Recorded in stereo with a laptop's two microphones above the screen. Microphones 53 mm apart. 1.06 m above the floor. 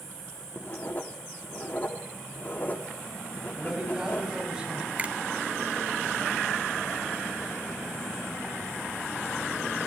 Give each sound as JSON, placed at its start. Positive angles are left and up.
{"t": 0.6, "sound": "writing", "side_deg": 35, "distance_m": 1.5}
{"t": 3.5, "sound": "a man speaking", "side_deg": -10, "distance_m": 6.0}
{"t": 5.0, "sound": "a finger snap", "side_deg": -30, "distance_m": 1.4}